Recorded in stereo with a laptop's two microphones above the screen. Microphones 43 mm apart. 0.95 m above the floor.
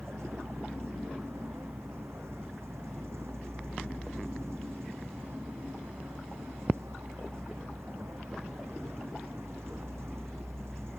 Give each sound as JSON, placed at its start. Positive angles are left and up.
{"t": 0.0, "sound": "a vehicle", "side_deg": -80}